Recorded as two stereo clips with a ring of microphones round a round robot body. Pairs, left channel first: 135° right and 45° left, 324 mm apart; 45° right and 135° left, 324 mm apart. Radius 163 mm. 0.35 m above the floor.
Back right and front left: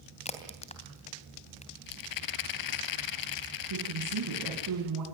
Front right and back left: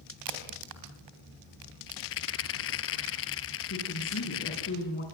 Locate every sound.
0.2 s a crack: 155° left, 3 m
1.9 s a rattle: 100° right, 1.2 m
3.7 s a woman speaking: 10° left, 4 m